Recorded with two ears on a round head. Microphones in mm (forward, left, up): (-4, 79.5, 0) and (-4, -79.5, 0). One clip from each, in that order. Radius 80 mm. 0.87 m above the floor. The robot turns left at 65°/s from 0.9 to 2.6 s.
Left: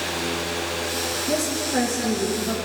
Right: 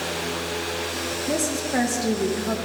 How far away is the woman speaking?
About 0.9 m.